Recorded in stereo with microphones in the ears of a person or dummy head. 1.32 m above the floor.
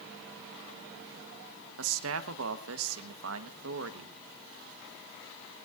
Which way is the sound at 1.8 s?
85° right.